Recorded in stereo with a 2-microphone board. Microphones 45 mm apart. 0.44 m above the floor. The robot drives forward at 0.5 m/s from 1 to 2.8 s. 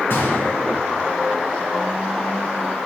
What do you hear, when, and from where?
0.1 s a gunshot: 55° left (ahead or behind), 2.5 m